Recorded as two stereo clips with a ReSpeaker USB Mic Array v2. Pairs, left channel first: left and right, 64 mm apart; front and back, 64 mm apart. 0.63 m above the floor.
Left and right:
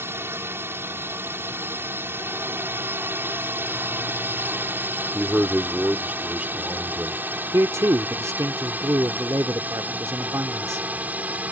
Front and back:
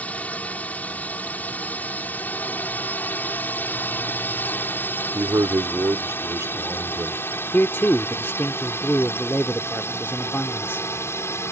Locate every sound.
0.0 s a drone: 60° right; by 11.5 s 30° right
5.1 s a man speaking: 155° right
7.5 s a man speaking: 50° right